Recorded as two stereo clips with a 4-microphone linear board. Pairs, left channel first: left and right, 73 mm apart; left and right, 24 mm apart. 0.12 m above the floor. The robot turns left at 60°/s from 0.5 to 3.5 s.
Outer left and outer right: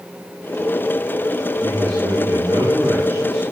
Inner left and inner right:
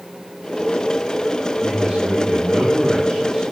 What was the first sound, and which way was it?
A man speaking, 70° right.